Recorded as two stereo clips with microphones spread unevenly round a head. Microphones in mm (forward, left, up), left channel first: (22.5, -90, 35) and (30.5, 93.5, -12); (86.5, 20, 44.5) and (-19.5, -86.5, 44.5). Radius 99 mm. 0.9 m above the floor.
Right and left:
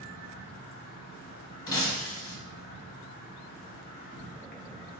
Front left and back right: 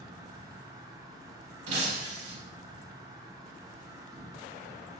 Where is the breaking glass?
130° right, 0.9 m.